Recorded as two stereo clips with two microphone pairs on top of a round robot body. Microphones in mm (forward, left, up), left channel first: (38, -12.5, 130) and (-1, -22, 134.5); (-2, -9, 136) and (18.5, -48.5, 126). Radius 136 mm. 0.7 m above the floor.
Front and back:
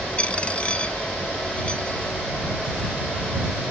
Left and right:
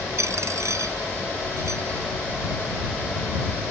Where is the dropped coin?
50° right.